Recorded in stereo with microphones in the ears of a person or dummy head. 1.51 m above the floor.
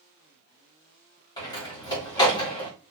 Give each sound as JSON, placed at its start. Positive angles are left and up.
{"t": 1.4, "sound": "a door slam", "side_deg": 20, "distance_m": 2.0}